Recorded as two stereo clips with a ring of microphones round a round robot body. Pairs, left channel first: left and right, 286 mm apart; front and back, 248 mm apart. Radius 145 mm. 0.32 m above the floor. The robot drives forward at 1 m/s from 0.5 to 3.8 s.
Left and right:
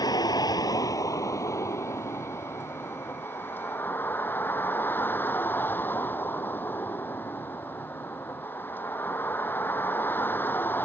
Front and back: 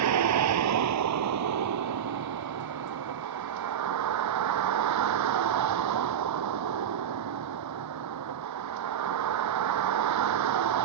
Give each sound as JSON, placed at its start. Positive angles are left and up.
{"t": 0.0, "sound": "a vehicle", "azimuth_deg": 170}